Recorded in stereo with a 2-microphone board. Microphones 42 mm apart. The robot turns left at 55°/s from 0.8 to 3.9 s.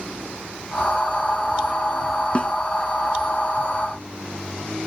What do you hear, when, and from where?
2.4 s a snare drum: 30° left (ahead or behind); by 2.5 s 25° left (ahead or behind)